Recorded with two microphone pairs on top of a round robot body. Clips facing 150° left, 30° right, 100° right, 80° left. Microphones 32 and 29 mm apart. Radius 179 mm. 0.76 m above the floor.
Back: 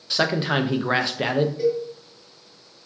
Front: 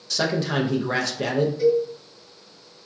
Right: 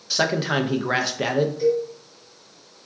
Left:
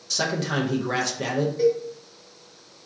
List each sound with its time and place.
0.1 s a man speaking: 145° right, 0.5 m
1.6 s a cowbell: 110° left, 0.8 m